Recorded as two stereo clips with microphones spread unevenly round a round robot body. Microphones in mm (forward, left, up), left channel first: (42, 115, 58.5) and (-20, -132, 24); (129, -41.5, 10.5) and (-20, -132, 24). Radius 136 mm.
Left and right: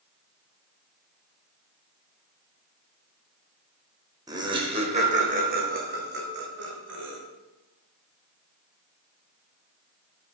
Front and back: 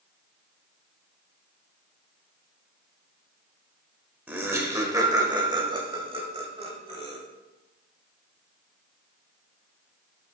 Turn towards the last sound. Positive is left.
turn(degrees=-100)